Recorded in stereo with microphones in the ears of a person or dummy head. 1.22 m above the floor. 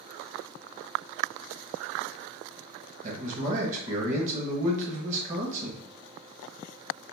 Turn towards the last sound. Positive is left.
turn(degrees=-35)  # may be behind; listen again after turning